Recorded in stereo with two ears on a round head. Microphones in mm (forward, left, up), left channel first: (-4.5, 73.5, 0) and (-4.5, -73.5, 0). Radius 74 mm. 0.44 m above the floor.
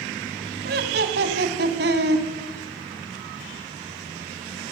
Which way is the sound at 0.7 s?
65° right (ahead or behind).